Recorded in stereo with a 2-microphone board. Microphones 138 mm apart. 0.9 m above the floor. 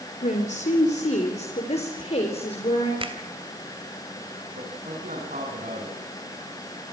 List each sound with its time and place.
0.2 s a woman speaking: 65° left (ahead or behind), 3.5 m; by 2.9 s 50° left (ahead or behind), 4.5 m
3.0 s a finger snap: 40° right (ahead or behind), 3 m
4.5 s a man speaking: 85° right, 9.5 m